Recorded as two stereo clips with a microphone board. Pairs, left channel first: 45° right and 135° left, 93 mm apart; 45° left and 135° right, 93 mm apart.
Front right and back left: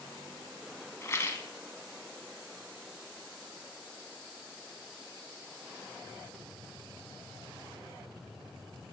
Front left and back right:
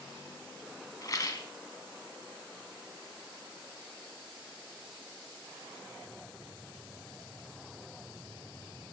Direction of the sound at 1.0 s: 5° left.